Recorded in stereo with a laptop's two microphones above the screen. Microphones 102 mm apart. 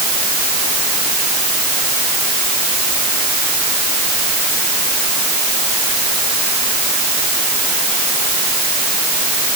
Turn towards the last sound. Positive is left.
No sound to turn to.